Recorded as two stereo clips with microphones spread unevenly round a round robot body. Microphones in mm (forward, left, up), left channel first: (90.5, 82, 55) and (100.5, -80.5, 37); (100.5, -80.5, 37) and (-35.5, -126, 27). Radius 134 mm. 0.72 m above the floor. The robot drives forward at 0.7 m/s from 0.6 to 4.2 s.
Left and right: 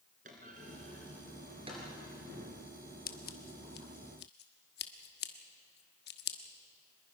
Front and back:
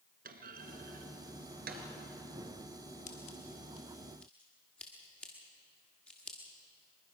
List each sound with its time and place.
0.2 s a clunk: 150° right, 1.8 m; by 1.9 s 160° right, 2.5 m
3.1 s scissors: 65° left, 1.4 m; by 6.4 s 105° left, 1.3 m